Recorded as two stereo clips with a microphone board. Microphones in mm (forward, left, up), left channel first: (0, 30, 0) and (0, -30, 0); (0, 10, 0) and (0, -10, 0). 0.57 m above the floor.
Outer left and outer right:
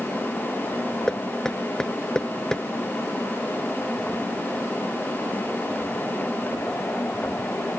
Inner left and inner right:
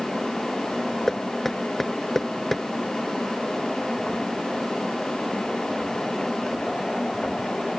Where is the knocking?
10° left (ahead or behind).